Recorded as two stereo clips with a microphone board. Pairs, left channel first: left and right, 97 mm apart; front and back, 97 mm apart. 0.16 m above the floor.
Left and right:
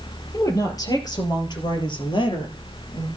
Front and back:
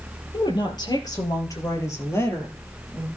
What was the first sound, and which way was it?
A woman speaking, 35° left.